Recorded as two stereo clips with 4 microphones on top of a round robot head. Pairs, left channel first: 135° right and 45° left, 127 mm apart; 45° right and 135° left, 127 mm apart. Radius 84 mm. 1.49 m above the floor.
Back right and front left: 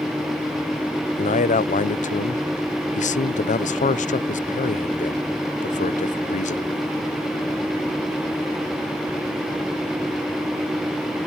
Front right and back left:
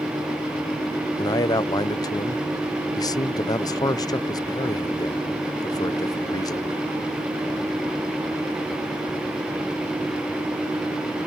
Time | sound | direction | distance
1.2 | a man speaking | 105° right | ?